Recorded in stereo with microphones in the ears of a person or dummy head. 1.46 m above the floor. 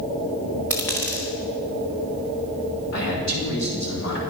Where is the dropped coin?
10° left (ahead or behind), 1.2 m.